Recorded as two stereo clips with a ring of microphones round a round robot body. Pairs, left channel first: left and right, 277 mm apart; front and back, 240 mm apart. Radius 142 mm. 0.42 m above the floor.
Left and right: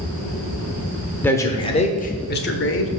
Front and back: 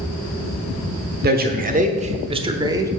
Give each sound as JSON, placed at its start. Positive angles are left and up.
{"t": 1.2, "sound": "a man speaking", "azimuth_deg": 170, "distance_m": 1.1}